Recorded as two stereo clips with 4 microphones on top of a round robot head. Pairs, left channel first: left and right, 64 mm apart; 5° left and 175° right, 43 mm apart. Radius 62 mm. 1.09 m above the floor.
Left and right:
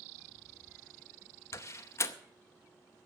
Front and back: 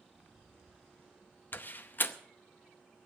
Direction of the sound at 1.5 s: 45° left.